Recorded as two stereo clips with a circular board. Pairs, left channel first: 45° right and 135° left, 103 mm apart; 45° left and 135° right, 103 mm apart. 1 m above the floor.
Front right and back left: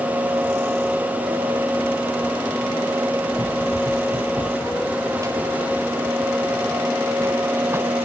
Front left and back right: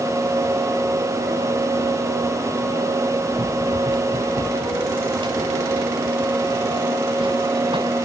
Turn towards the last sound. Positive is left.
turn(degrees=-160)